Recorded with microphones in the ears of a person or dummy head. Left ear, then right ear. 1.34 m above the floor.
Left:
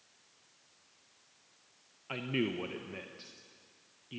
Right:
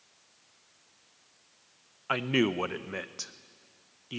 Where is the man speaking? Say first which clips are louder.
Right 8 dB; 50° right (ahead or behind), 0.8 m.